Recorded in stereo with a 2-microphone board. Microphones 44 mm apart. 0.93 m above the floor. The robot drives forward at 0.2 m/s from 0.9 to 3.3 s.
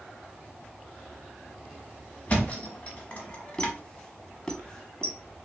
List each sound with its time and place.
2.3 s a thud: 35° left (ahead or behind), 0.9 m
3.6 s a squeak: 20° left (ahead or behind), 0.6 m